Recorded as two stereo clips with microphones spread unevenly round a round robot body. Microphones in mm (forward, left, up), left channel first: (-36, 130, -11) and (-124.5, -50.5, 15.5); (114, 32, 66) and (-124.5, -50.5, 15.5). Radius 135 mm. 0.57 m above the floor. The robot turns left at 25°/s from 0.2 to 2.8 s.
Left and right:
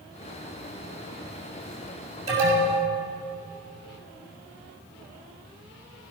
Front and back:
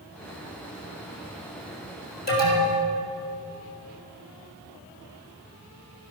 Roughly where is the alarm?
Ahead right.